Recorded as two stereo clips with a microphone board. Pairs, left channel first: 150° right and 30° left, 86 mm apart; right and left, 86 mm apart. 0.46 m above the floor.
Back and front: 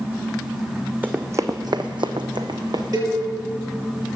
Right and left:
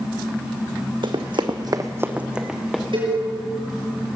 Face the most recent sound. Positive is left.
turn(degrees=75)